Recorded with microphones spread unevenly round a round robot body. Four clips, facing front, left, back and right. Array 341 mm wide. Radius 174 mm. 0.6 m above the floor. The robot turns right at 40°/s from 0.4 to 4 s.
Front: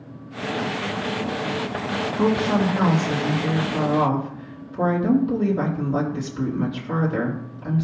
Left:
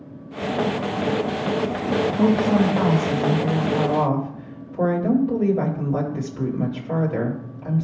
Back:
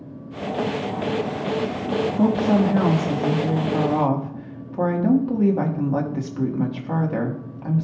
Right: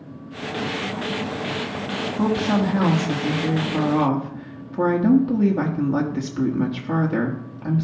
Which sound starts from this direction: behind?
A woman speaking, at 2.2 s.